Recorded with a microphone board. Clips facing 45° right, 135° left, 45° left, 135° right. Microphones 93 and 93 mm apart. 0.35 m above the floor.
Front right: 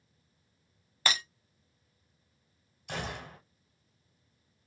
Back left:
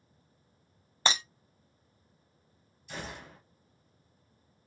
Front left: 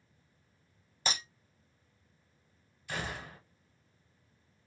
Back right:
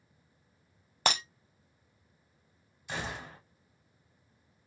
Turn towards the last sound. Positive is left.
turn(degrees=-65)